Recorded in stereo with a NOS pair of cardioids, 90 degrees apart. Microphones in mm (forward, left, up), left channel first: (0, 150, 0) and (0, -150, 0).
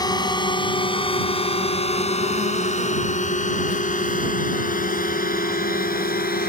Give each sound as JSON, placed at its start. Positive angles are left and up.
{"t": 0.0, "sound": "a drone", "azimuth_deg": 15}